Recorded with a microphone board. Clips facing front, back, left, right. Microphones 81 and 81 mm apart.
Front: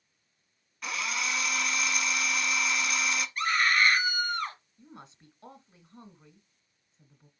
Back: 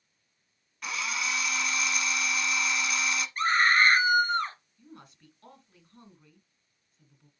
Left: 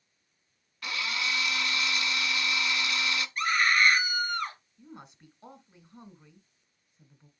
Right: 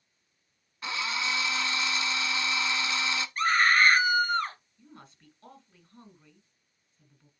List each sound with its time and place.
0.8 s a drill: 90° right, 1.0 m
3.4 s a scream: 135° right, 2.5 m
4.8 s a woman speaking: 40° left, 1.3 m